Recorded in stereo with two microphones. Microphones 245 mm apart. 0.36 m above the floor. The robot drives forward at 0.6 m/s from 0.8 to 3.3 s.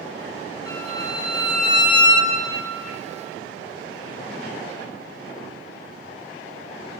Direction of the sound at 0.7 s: 15° left (ahead or behind).